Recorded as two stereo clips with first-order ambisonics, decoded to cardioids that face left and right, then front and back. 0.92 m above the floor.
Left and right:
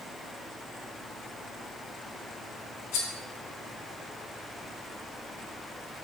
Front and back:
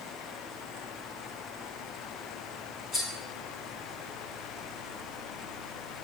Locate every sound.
2.9 s cutlery clinking: 65° left, 0.9 m